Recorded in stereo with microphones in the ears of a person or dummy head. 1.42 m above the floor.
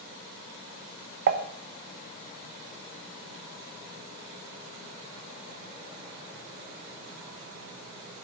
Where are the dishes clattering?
50° right (ahead or behind), 0.9 m.